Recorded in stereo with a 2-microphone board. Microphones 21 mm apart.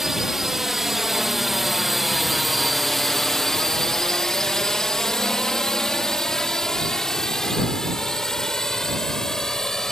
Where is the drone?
20° right (ahead or behind); by 9.9 s 25° left (ahead or behind).